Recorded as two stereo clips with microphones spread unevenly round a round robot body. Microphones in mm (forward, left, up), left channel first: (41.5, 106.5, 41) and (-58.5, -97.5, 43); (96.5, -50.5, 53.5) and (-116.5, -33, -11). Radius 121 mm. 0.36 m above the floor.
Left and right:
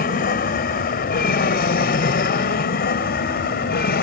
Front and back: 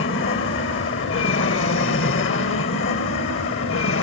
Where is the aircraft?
30° left.